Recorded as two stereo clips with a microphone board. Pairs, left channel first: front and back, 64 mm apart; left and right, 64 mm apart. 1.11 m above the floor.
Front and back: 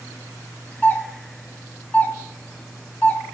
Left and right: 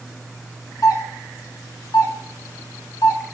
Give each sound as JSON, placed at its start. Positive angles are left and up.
{"t": 0.8, "sound": "a doorbell", "azimuth_deg": 65, "distance_m": 1.8}